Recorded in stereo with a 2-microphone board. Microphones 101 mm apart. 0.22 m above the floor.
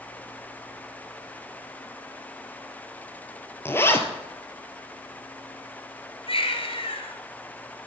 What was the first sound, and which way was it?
A zipper, 25° left (ahead or behind).